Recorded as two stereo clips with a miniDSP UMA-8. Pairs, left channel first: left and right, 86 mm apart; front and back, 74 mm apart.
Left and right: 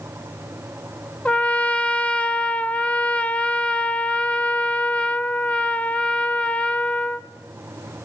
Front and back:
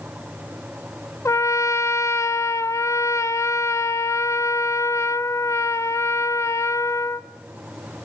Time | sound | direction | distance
1.2 | a trumpet | 20° left | 0.5 m